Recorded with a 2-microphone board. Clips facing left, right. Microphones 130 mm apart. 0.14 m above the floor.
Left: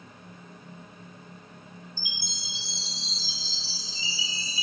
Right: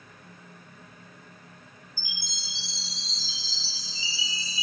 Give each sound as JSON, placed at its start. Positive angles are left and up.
{"t": 2.0, "sound": "a chime", "side_deg": -30, "distance_m": 2.5}